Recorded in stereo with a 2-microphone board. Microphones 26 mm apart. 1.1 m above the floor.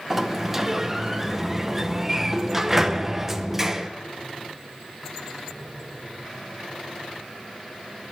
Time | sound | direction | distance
0.1 | a sliding door | 15° right (ahead or behind) | 0.7 m